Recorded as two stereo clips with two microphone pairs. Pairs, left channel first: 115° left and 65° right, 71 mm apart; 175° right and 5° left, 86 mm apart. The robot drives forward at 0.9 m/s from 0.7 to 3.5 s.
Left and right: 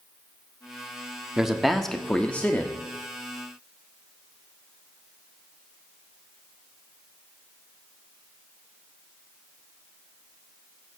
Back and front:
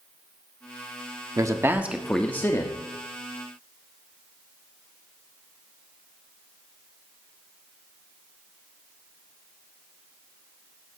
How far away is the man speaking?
About 1.0 m.